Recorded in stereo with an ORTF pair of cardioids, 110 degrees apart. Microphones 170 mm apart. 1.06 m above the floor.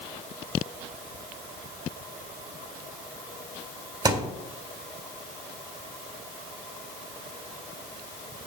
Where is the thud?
25° right, 1.6 m.